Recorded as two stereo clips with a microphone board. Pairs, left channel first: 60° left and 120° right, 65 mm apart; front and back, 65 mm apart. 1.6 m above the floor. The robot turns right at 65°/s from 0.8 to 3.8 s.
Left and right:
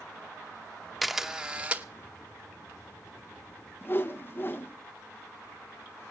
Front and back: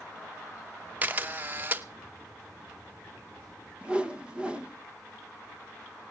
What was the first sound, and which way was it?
A camera shutter, 150° left.